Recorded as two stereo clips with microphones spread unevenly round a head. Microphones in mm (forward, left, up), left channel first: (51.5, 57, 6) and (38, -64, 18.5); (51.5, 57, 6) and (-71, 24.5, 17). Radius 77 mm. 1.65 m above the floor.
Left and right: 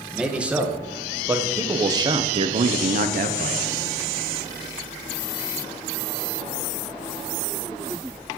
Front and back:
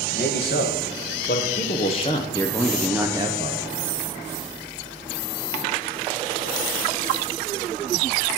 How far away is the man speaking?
About 1.6 m.